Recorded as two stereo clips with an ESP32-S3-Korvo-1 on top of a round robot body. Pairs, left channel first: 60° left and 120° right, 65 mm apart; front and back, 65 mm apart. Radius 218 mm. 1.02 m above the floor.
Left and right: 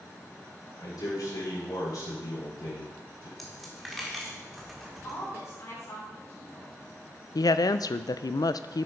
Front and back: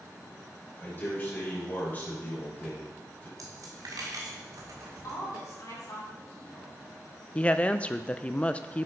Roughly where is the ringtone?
I don't hear a ringtone.